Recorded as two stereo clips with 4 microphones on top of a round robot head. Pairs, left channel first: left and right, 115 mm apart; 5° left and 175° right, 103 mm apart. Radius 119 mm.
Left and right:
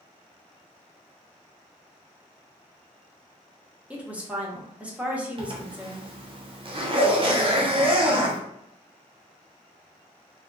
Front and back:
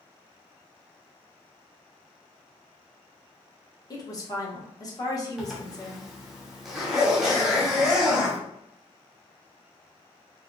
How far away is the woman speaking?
About 1.0 m.